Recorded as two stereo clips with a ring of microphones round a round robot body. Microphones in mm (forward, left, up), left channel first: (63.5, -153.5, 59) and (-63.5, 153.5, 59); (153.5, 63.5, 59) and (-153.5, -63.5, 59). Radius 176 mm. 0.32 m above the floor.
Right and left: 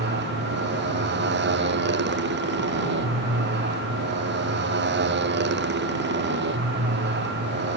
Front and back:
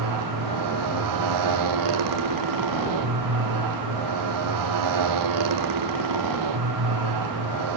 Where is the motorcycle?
170° left.